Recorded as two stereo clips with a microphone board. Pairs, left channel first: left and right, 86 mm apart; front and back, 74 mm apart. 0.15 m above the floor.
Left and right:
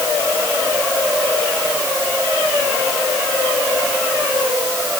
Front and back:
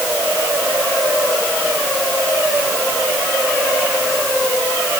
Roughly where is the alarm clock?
I don't hear an alarm clock.